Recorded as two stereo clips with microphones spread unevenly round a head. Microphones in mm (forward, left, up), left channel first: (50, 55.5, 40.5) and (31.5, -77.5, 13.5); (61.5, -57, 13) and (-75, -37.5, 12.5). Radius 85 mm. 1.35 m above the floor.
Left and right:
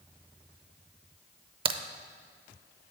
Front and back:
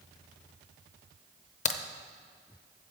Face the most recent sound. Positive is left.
turn(degrees=-45)